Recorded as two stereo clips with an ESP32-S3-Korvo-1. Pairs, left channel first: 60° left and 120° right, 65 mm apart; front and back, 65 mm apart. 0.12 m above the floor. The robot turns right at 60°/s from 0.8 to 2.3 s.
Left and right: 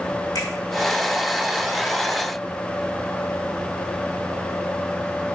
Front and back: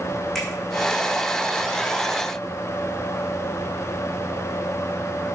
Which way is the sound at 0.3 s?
85° left.